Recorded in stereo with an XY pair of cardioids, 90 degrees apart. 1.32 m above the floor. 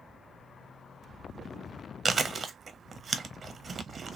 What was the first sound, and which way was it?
Chewing, 45° right.